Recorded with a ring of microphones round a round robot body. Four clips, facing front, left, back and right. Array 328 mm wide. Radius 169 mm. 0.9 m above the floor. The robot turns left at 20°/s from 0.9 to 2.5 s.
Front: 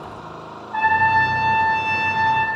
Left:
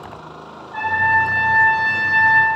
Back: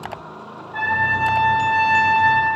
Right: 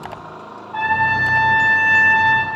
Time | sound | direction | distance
0.7 | a trumpet | 25° right | 3 m